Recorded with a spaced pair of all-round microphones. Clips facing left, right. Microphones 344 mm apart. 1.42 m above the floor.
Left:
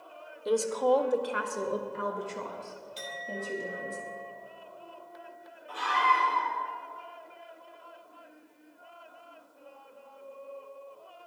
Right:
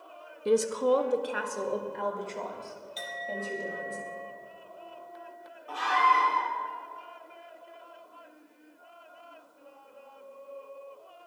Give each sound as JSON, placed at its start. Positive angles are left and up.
{"t": 0.5, "sound": "a woman speaking", "side_deg": -40, "distance_m": 0.8}
{"t": 3.0, "sound": "a clink", "side_deg": 35, "distance_m": 2.5}
{"t": 5.7, "sound": "a scream", "side_deg": -80, "distance_m": 4.5}